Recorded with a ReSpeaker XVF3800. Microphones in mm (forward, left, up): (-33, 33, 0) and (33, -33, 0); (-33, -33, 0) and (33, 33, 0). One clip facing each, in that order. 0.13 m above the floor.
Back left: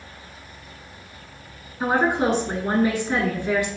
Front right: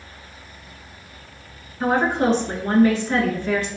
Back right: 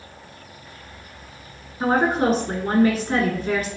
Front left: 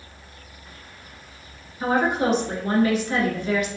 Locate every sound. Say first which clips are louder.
1.8 s a woman speaking: front right 1 dB, back right 2 dB; 165° right, 1.3 m